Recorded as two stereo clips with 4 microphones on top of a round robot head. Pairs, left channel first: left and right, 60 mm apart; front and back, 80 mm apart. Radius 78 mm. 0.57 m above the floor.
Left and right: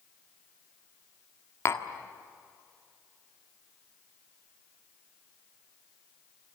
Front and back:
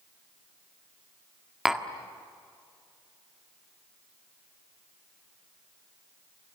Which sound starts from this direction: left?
Tapping, at 1.6 s.